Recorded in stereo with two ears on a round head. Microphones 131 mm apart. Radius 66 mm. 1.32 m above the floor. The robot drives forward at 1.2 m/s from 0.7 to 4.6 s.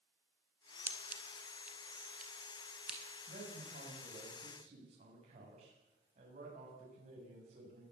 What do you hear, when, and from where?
0.9 s scissors: 10° right (ahead or behind), 2.5 m; by 3.0 s 5° right (ahead or behind), 5 m
3.3 s a man speaking: 55° right (ahead or behind), 7 m; by 7.8 s 45° right (ahead or behind), 8 m